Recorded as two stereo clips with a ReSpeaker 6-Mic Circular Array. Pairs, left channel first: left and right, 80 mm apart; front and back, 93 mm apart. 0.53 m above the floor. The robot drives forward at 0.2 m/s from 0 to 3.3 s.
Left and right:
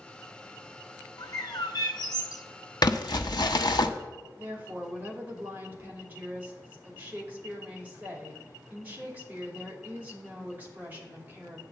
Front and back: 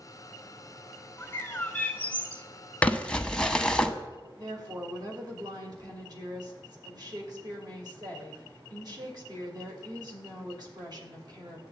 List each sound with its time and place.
1.2 s a bird: 60° left, 1.0 m; by 2.5 s 75° left, 0.9 m
2.8 s crumpling: 75° left, 0.8 m; by 3.9 s 80° left, 0.7 m
4.4 s a woman speaking: 155° right, 2.5 m